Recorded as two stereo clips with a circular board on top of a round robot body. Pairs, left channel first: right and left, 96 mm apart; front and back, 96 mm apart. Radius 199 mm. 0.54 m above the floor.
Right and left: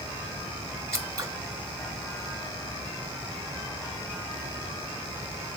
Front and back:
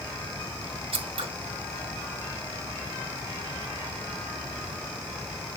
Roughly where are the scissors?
Behind left.